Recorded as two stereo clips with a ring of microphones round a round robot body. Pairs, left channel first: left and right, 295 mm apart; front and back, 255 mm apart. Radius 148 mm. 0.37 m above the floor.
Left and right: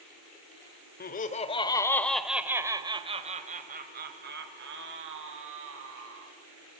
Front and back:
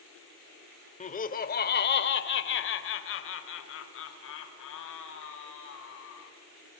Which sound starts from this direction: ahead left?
Laughter, at 1.0 s.